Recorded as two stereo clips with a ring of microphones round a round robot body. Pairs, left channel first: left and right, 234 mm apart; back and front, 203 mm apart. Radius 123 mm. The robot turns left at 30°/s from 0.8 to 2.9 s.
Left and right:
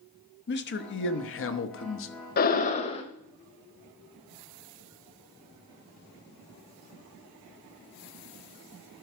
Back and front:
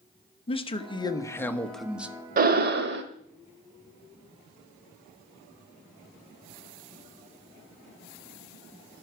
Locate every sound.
0.5 s a man speaking: 120° left, 1.0 m; by 2.1 s 80° left, 1.0 m
2.4 s breathing: 40° left, 0.9 m; by 3.0 s 25° left, 0.9 m